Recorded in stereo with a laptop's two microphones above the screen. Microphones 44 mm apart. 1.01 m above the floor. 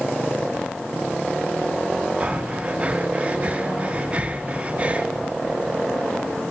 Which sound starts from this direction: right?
Breathing, at 2.2 s.